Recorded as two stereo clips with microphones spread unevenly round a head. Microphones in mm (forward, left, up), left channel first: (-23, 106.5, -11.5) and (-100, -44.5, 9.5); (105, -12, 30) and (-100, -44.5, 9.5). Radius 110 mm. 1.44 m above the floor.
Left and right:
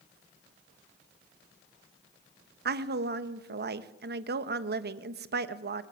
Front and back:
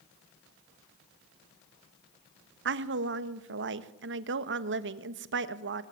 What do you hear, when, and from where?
2.6 s a woman speaking: 135° right, 1.4 m